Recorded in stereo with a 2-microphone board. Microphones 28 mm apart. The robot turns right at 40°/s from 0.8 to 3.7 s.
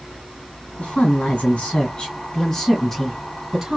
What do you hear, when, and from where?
0.8 s a woman speaking: 80° left, 2 m; by 3.8 s 165° right, 2 m